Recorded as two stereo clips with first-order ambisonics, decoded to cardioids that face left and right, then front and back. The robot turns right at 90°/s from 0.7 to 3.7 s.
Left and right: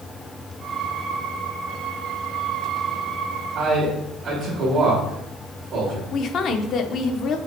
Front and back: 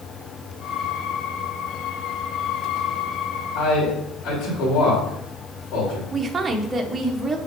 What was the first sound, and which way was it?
A man speaking, 45° right.